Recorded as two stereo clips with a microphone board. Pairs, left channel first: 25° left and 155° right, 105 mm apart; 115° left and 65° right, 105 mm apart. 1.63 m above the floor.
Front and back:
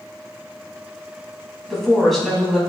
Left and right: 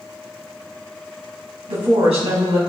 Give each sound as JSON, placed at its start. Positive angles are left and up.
{"t": 1.7, "sound": "a woman speaking", "azimuth_deg": -65, "distance_m": 2.5}